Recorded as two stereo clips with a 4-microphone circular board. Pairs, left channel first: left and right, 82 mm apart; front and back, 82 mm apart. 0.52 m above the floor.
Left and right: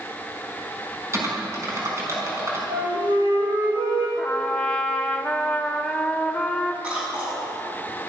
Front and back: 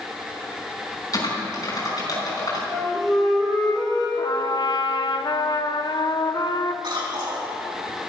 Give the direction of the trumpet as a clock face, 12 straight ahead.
12 o'clock.